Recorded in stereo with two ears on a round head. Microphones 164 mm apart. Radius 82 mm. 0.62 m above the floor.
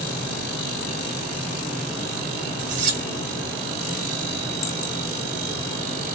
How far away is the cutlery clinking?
About 1.1 m.